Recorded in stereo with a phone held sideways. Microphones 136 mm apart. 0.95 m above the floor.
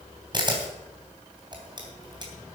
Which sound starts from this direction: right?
A camera shutter, at 0.3 s.